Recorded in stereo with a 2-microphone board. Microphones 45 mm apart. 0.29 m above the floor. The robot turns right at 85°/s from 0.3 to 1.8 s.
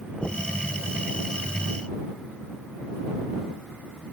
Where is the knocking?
10° left (ahead or behind); by 0.5 s 10° right (ahead or behind).